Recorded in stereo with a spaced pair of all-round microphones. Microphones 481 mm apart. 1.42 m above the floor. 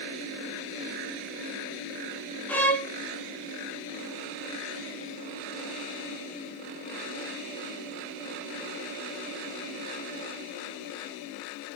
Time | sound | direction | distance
2.5 | a violin | 5° left (ahead or behind) | 0.6 m